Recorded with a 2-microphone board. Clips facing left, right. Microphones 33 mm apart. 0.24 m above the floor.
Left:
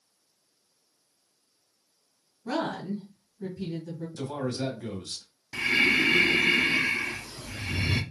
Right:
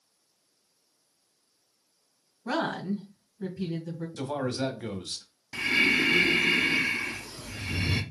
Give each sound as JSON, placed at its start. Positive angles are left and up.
{"t": 2.5, "sound": "a woman speaking", "side_deg": -30, "distance_m": 1.9}
{"t": 4.2, "sound": "a man speaking", "side_deg": -30, "distance_m": 1.0}
{"t": 5.5, "sound": "breathing", "side_deg": 5, "distance_m": 0.6}